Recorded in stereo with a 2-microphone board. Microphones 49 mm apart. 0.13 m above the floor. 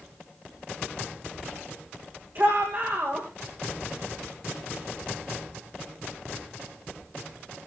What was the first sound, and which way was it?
A shout, 45° right (ahead or behind).